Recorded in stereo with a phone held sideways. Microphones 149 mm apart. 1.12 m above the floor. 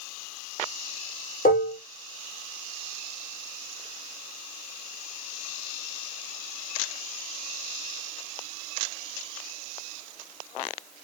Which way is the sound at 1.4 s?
70° left (ahead or behind).